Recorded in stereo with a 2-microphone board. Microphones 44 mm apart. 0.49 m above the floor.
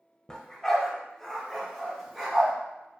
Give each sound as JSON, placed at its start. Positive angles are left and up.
{"t": 0.3, "sound": "a dog barking", "side_deg": 20, "distance_m": 0.6}